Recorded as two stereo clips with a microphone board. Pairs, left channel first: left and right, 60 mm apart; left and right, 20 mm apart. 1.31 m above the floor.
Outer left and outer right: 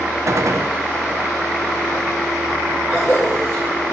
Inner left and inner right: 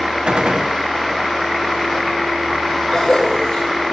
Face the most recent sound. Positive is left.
turn(degrees=65)  # may be behind; listen again after turning